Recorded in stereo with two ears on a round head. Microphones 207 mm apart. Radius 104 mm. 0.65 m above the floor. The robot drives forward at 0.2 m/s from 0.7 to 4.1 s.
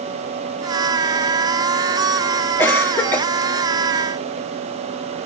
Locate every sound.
2.6 s a cough: 10° left (ahead or behind), 0.7 m